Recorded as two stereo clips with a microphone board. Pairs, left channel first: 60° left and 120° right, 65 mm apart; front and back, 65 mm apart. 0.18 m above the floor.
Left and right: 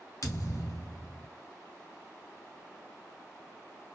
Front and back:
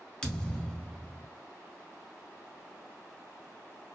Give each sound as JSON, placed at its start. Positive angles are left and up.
{"t": 0.2, "sound": "a thud", "azimuth_deg": 80, "distance_m": 1.0}